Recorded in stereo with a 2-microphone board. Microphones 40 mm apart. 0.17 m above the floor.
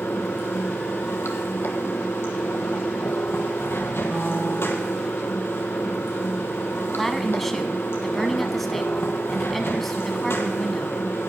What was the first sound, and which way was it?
Running water, 80° left.